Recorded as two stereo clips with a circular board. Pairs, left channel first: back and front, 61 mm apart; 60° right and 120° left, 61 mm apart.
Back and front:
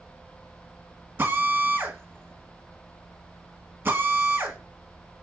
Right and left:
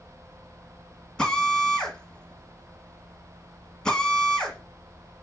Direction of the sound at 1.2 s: 10° left.